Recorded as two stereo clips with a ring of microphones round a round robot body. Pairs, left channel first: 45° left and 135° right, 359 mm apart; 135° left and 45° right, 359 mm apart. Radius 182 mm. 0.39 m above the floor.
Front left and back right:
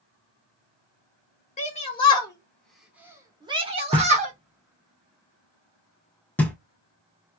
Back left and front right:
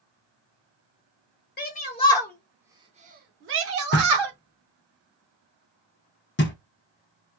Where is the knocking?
125° left, 0.7 m.